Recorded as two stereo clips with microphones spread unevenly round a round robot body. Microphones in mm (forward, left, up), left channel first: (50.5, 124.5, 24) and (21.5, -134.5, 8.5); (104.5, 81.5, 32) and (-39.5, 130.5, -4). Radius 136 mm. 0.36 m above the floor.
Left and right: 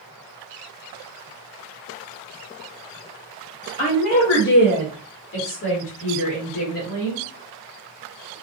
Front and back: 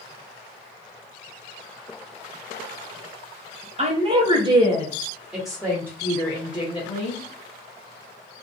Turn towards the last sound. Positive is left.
turn(degrees=40)